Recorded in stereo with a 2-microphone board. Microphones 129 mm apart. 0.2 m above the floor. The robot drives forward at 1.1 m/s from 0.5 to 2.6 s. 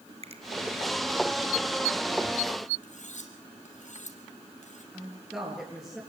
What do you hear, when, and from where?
0.2 s a finger snap: 55° right (ahead or behind), 1.9 m
2.8 s cutlery clinking: 70° left (ahead or behind), 3.5 m
4.9 s a woman speaking: 5° right (ahead or behind), 4.5 m